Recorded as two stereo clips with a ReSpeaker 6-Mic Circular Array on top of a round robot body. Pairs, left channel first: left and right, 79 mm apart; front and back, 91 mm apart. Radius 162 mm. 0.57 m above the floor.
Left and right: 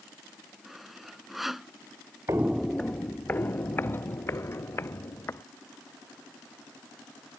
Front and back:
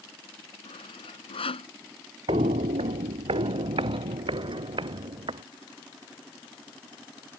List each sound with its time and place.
0.7 s sawing: 5° right
2.3 s footsteps: 150° right; by 5.4 s 150° left